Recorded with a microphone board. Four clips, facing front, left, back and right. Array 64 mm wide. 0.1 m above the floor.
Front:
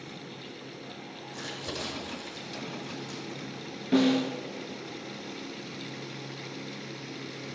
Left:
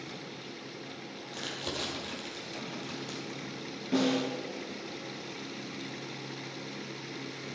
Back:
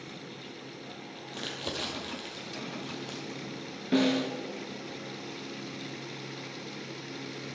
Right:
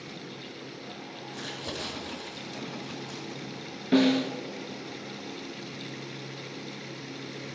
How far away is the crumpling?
About 2.5 m.